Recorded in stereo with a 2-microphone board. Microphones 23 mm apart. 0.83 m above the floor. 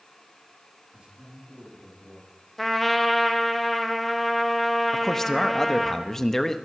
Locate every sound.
0.9 s a man speaking: 45° right (ahead or behind), 8.5 m
2.6 s a trumpet: 5° left (ahead or behind), 1.3 m
4.9 s a man speaking: 20° left (ahead or behind), 0.8 m